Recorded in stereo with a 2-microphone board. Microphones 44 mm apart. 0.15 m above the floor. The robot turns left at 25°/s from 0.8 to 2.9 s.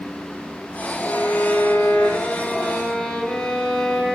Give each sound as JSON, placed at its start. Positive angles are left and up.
{"t": 1.1, "sound": "a violin", "azimuth_deg": 60, "distance_m": 4.0}